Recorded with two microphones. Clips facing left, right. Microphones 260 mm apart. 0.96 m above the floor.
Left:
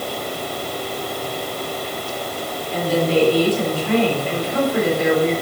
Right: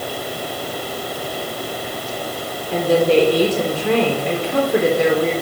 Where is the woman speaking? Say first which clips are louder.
Right 4 dB; 75° right (ahead or behind), 3.5 m.